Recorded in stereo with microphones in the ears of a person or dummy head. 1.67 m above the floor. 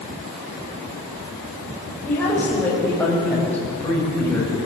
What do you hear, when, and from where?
2.0 s a woman speaking: 10° left (ahead or behind), 6 m; by 4.5 s 5° left (ahead or behind), 8 m